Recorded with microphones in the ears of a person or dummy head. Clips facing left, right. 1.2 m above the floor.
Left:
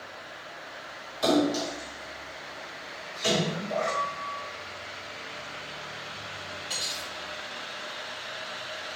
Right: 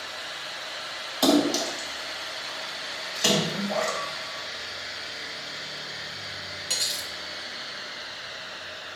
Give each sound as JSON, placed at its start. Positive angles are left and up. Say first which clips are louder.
{"t": 1.2, "sound": "a splash", "louder": "right 3 dB", "side_deg": -70, "distance_m": 2.0}
{"t": 3.9, "sound": "a piano", "louder": "left 1 dB", "side_deg": 25, "distance_m": 3.0}
{"t": 6.7, "sound": "cutlery clinking", "louder": "even", "side_deg": -35, "distance_m": 1.6}